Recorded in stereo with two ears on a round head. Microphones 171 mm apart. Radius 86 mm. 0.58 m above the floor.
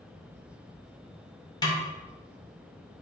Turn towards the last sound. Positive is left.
turn(degrees=20)  # may be behind; listen again after turning